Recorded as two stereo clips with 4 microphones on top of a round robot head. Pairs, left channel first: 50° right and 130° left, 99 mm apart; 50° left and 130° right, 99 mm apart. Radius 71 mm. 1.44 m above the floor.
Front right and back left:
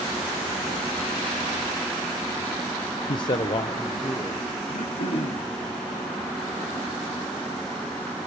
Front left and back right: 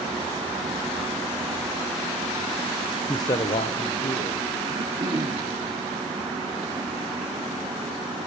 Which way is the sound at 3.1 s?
15° right.